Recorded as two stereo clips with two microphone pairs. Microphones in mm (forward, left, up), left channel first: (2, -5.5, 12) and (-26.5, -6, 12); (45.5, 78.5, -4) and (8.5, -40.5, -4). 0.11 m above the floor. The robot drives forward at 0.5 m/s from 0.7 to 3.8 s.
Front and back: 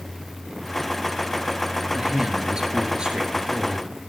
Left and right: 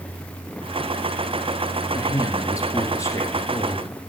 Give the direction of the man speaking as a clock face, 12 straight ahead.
8 o'clock.